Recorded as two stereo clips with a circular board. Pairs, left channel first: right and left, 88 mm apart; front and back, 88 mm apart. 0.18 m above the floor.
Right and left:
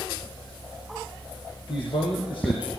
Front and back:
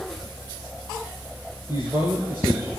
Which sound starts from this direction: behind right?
A man speaking, at 1.7 s.